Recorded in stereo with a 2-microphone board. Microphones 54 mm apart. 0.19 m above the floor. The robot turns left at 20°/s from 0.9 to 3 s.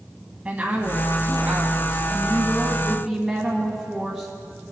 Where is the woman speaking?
25° right (ahead or behind), 1.2 m; by 4.3 s 15° right (ahead or behind), 1.2 m.